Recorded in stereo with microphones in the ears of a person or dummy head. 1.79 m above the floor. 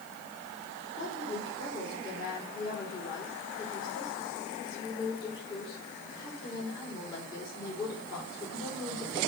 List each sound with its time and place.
0.9 s a woman speaking: 25° left (ahead or behind), 3.5 m